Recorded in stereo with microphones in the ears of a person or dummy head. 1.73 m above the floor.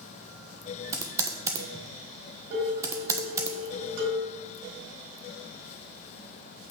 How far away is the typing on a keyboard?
About 0.7 m.